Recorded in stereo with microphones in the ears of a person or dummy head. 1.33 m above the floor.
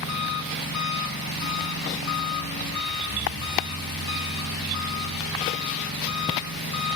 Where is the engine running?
60° left (ahead or behind), 3 m.